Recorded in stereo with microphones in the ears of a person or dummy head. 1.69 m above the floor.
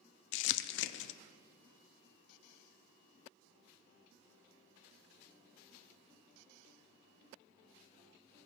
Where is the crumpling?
70° left (ahead or behind), 0.6 m.